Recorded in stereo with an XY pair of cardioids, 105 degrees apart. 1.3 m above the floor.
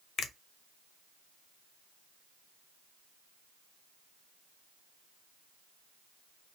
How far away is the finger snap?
About 0.6 m.